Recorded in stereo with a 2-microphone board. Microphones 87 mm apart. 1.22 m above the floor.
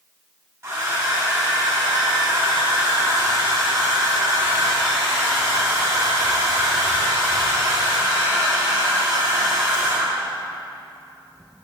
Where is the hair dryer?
30° right (ahead or behind), 1.4 m.